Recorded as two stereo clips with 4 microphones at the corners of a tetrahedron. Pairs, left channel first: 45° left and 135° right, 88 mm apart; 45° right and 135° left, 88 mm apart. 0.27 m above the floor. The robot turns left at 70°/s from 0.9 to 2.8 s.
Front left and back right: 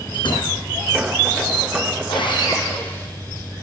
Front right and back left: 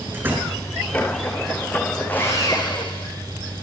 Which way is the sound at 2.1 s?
30° left.